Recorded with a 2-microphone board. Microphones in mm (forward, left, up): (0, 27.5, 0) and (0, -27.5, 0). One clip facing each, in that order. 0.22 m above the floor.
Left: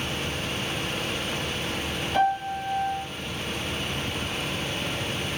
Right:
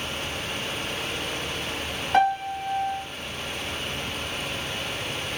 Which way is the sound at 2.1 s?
50° right (ahead or behind).